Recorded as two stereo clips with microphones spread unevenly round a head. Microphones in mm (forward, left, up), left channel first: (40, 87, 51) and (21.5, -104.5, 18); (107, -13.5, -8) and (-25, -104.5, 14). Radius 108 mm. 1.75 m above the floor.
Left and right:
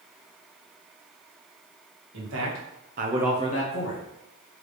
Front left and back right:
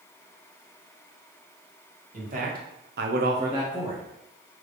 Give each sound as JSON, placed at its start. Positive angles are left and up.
{"t": 2.1, "sound": "a man speaking", "azimuth_deg": -115, "distance_m": 1.9}